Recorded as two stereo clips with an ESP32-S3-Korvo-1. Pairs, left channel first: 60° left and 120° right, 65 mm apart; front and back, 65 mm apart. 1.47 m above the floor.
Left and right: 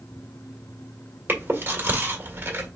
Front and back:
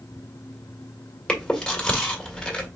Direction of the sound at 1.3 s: 75° right.